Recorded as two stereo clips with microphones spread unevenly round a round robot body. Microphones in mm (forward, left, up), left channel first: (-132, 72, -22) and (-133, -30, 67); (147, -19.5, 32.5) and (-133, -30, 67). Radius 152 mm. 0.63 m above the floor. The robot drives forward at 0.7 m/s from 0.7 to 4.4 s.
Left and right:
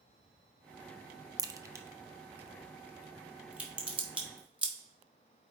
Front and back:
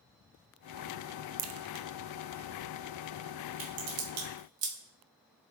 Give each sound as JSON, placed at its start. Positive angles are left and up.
{"t": 1.4, "sound": "a crack", "azimuth_deg": -165, "distance_m": 0.8}